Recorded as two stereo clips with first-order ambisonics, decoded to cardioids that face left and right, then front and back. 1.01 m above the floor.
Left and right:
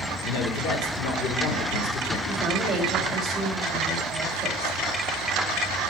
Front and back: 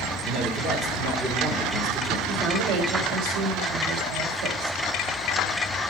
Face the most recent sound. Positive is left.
turn(degrees=-165)